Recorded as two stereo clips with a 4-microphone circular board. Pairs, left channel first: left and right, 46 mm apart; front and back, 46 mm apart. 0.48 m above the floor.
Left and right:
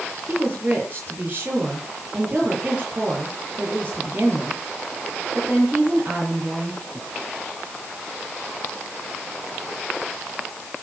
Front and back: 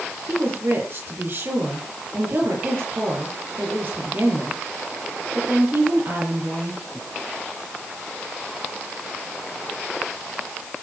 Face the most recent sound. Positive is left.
turn(degrees=-140)